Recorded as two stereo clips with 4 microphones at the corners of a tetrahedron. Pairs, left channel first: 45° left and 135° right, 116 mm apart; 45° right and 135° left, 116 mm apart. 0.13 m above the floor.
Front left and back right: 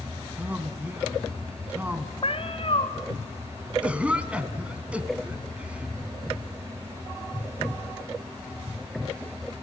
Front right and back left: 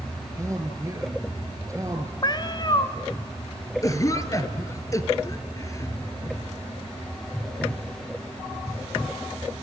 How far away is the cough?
About 1.6 m.